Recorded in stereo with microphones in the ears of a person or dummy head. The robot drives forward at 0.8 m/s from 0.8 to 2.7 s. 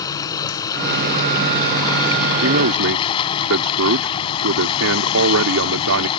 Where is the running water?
20° left (ahead or behind); by 6.2 s 30° left (ahead or behind).